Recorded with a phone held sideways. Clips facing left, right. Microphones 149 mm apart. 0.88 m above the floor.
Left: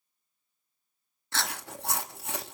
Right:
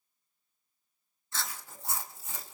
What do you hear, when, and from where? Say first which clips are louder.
1.3 s chewing: left 6 dB; 70° left (ahead or behind), 0.7 m